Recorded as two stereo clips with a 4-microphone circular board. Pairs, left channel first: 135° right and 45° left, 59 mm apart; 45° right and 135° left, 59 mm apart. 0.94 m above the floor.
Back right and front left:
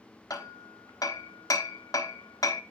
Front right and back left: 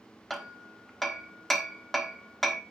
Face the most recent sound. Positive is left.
turn(degrees=-130)